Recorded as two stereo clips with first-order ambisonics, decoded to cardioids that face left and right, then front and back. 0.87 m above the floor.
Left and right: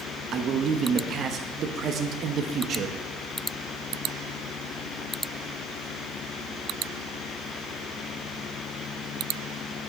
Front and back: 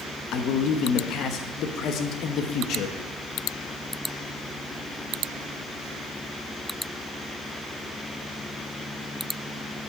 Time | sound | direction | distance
0.3 | a man speaking | 40° right | 1.0 m